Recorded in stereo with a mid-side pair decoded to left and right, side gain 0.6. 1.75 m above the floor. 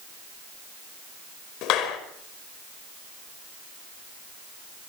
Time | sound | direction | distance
1.6 | a clap | 70° left | 5 m